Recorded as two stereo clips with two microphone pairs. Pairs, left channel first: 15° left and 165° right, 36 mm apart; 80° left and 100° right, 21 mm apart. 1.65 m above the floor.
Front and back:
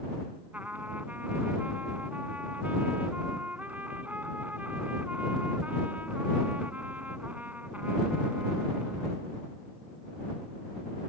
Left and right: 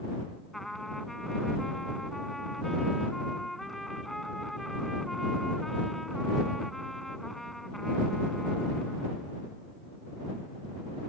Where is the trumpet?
155° left.